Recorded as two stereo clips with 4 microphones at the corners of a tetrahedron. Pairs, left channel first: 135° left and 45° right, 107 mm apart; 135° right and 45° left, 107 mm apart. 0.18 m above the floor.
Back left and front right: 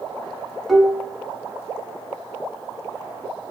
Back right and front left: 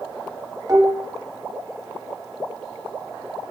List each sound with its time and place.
0.7 s dishes clattering: 50° left, 1.0 m